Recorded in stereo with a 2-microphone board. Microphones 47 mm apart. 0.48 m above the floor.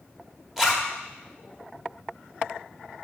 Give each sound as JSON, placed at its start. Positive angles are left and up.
{"t": 0.6, "sound": "a zipper", "side_deg": -5, "distance_m": 1.2}